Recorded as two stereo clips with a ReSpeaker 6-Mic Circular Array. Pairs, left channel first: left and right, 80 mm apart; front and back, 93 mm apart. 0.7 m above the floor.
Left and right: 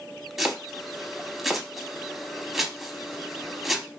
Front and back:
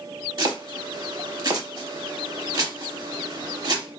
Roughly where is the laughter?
I don't hear laughter.